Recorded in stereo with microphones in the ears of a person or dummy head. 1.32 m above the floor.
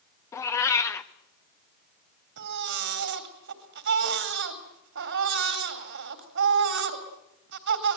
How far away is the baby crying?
About 3.5 m.